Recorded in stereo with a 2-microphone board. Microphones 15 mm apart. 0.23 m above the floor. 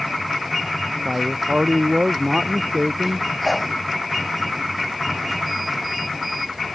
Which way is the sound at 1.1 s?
65° right (ahead or behind).